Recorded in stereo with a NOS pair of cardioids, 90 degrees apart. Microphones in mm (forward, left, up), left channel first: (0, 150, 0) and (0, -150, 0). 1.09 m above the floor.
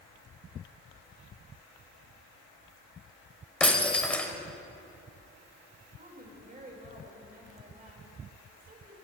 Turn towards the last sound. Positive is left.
turn(degrees=-30)